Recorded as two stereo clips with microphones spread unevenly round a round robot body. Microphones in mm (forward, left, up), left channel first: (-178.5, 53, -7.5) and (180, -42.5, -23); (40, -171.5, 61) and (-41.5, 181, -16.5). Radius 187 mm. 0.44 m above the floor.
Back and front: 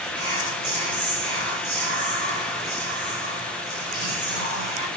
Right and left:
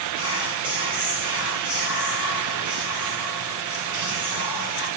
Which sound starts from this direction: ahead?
Whispering, at 0.1 s.